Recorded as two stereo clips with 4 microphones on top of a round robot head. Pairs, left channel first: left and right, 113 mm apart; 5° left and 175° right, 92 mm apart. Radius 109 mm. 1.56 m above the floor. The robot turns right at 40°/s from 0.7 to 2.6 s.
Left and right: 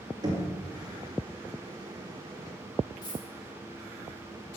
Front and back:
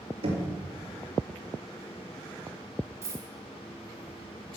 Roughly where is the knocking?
Behind right.